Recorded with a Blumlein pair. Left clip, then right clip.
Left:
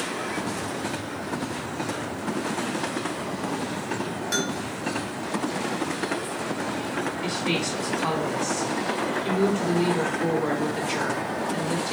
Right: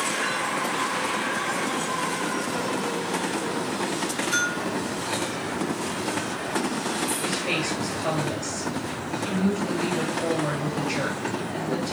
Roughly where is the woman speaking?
Ahead left.